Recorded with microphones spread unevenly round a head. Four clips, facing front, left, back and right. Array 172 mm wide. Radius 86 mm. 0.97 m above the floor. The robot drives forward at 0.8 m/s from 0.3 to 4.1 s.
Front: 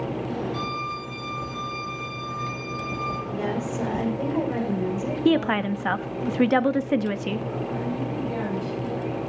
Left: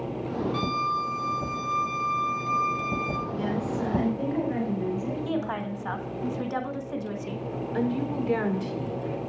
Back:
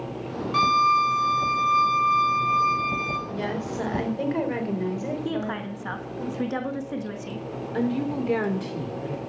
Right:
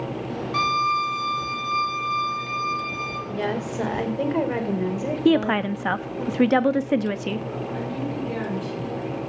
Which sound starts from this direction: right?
A woman speaking, at 3.3 s.